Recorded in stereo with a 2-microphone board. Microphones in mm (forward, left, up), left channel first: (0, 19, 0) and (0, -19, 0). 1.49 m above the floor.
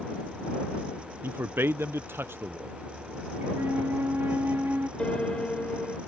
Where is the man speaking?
75° right (ahead or behind).